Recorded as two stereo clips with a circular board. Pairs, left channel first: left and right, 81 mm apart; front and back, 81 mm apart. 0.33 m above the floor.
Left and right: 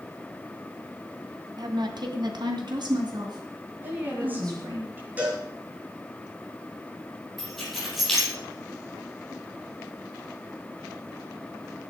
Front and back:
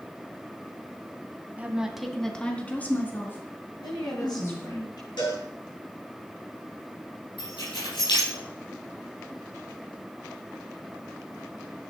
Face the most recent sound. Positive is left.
turn(degrees=5)